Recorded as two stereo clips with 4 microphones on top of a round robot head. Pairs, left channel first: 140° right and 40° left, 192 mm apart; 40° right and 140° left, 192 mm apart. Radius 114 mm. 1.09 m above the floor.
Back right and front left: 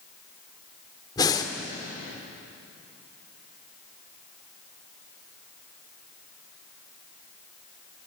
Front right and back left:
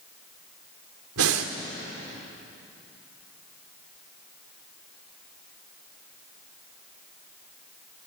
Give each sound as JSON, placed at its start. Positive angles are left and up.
{"t": 1.2, "sound": "breathing", "azimuth_deg": 145, "distance_m": 2.0}